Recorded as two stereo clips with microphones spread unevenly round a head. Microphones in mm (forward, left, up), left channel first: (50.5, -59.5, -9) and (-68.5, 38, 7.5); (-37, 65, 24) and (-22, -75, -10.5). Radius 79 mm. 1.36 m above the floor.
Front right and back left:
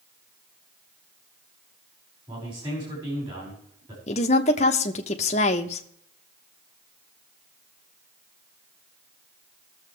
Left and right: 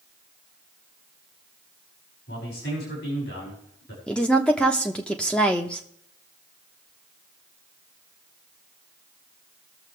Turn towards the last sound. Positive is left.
turn(degrees=15)